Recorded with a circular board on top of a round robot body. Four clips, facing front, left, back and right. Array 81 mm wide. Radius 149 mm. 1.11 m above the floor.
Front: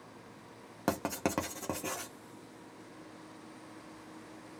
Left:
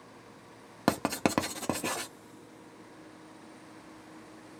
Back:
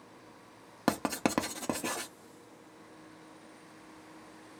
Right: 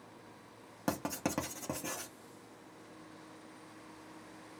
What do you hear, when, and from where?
0.9 s writing: 115° left, 0.8 m